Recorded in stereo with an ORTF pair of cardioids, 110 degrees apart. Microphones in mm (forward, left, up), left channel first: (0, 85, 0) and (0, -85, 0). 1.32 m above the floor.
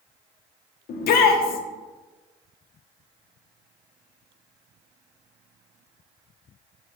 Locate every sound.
0.9 s a shout: 65° left, 0.6 m